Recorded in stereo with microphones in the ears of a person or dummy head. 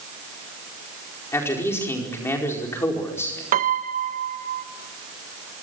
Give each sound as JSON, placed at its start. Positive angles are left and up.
{"t": 1.3, "sound": "a man speaking", "side_deg": 10, "distance_m": 4.5}
{"t": 3.5, "sound": "a piano", "side_deg": -45, "distance_m": 1.1}